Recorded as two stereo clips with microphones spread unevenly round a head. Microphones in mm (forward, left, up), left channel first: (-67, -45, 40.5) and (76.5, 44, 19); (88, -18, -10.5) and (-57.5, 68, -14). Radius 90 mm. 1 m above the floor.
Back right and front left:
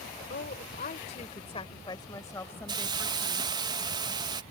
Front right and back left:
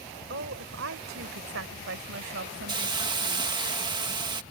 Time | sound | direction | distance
0.3 | a woman speaking | 175° left | ?
2.7 | a hiss | 90° left | ?